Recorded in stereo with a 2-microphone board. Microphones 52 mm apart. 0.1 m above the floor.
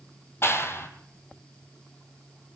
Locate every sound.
0.4 s a clap: 50° left (ahead or behind), 3 m